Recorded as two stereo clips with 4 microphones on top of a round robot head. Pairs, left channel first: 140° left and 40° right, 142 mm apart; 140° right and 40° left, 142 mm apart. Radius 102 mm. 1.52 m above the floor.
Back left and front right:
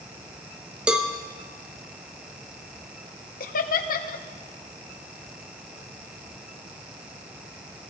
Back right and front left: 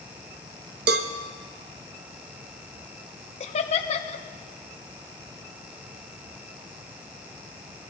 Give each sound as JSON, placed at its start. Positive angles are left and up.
{"t": 0.9, "sound": "a cowbell", "azimuth_deg": 45, "distance_m": 0.9}
{"t": 3.4, "sound": "laughter", "azimuth_deg": 170, "distance_m": 1.2}